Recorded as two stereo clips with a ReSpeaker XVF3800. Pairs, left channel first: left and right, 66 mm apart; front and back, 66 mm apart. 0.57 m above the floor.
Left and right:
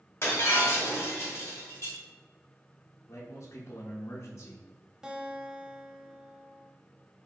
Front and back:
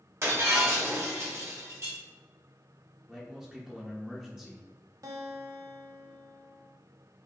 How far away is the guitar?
About 0.6 m.